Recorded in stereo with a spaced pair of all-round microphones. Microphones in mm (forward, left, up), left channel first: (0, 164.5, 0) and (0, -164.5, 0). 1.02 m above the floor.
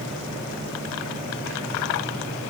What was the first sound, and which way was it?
Only background noise.